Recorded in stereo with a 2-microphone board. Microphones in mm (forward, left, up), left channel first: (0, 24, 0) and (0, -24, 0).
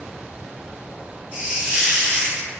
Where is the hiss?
25° right (ahead or behind), 1.1 m.